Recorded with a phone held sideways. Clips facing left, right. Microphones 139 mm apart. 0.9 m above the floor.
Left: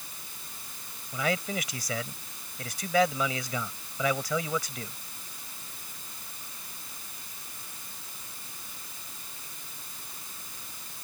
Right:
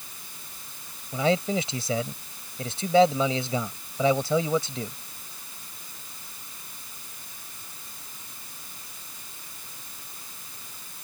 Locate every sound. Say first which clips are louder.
1.1 s a man speaking: right 6 dB; 25° right (ahead or behind)